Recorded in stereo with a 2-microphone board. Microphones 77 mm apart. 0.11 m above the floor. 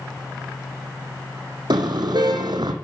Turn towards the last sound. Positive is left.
turn(degrees=-65)  # may be behind; listen again after turning